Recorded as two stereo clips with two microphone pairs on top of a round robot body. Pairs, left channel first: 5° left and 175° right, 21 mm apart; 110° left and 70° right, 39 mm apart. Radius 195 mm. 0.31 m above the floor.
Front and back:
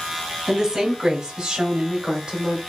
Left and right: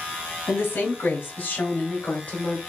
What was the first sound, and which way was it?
A woman speaking, 125° left.